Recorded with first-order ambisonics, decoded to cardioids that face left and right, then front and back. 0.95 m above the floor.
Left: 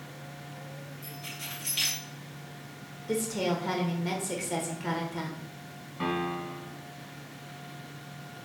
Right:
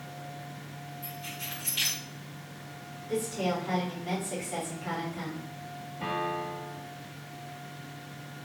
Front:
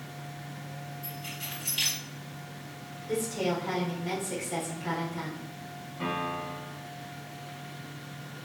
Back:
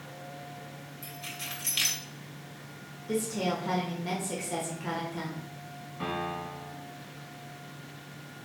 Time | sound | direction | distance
1.0 | keys jangling | straight behind | 1.9 m
3.1 | a woman speaking | 110° left | 1.5 m
6.0 | a piano | 95° left | 1.5 m